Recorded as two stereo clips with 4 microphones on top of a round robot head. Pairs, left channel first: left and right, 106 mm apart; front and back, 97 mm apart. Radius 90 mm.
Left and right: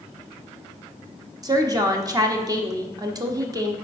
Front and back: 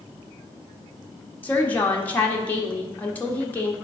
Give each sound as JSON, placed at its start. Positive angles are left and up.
{"t": 1.4, "sound": "a woman speaking", "azimuth_deg": -60, "distance_m": 1.0}